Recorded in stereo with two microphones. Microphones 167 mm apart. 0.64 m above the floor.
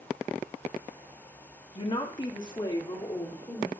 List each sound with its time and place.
1.8 s a woman speaking: 30° left (ahead or behind), 1.2 m; by 3.7 s 20° left (ahead or behind), 2.5 m